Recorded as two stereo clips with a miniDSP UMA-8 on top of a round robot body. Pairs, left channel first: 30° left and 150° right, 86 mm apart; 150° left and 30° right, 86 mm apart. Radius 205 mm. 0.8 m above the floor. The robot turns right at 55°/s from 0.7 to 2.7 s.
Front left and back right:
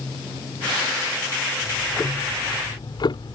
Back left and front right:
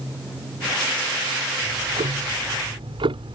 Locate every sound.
1.6 s ticking: 65° right; by 3.4 s 5° right